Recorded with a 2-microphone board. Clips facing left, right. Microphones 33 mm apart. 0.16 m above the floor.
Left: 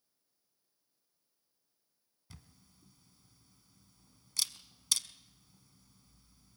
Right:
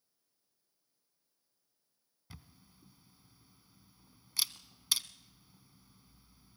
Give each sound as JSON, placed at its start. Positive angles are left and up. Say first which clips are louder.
{"t": 2.3, "sound": "a camera shutter", "louder": "right 2 dB", "side_deg": -20, "distance_m": 0.9}